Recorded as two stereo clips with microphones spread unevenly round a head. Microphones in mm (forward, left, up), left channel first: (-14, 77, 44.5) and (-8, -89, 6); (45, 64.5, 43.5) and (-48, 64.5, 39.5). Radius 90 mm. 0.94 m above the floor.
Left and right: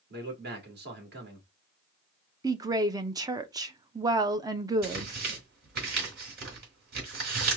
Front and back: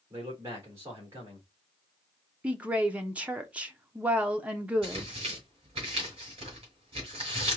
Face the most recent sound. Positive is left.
turn(degrees=-125)